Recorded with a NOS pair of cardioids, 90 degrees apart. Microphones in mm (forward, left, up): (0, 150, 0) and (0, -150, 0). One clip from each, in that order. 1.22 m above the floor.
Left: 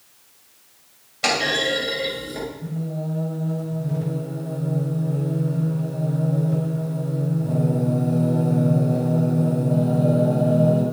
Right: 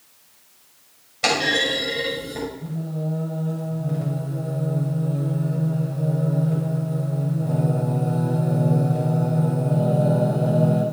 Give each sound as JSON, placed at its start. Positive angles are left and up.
{"t": 1.2, "sound": "a clunk", "azimuth_deg": -10, "distance_m": 7.0}
{"t": 2.6, "sound": "singing", "azimuth_deg": -15, "distance_m": 7.5}